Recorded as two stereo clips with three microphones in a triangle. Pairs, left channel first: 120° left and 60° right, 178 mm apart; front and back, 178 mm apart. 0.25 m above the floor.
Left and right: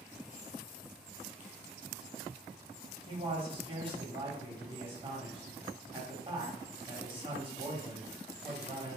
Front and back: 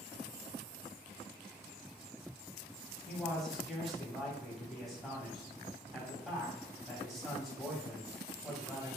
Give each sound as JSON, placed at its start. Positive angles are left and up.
{"t": 3.1, "sound": "a man speaking", "azimuth_deg": -90, "distance_m": 1.3}